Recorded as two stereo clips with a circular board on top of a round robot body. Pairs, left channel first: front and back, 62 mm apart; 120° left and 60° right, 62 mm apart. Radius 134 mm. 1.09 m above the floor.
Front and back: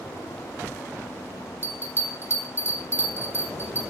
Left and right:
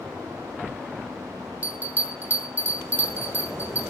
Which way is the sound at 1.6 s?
125° right.